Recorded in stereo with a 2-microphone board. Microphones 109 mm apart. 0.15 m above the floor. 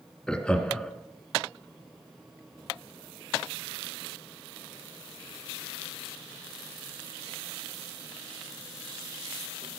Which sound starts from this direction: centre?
Laughter, at 0.3 s.